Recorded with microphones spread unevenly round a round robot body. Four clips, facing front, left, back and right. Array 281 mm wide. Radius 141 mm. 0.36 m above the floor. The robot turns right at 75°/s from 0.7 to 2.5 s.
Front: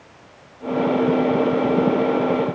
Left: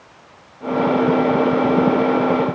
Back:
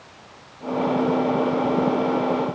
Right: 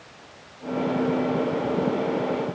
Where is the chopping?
I don't hear chopping.